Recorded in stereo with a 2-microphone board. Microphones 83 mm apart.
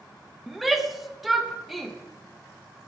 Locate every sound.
0.5 s a shout: centre (ahead or behind), 0.5 m